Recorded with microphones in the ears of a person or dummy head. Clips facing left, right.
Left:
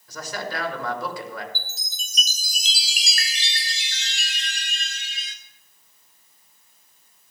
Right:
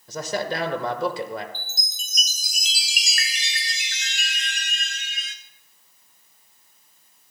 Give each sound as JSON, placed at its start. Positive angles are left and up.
{"t": 0.1, "sound": "a man speaking", "side_deg": -30, "distance_m": 1.2}
{"t": 1.6, "sound": "a chime", "side_deg": 25, "distance_m": 0.6}